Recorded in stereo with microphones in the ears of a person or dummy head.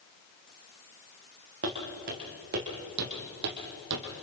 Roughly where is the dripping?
I don't hear dripping.